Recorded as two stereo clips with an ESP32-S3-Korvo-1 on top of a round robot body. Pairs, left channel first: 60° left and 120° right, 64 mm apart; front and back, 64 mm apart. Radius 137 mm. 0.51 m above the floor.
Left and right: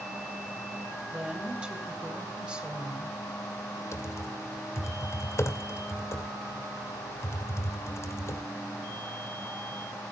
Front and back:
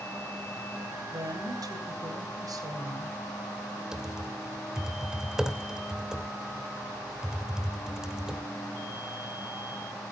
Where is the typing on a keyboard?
100° left, 2.5 m.